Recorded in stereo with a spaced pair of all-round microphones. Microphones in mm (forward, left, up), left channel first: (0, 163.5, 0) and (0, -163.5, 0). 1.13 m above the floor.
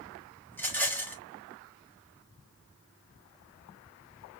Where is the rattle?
5° left (ahead or behind), 1.3 m.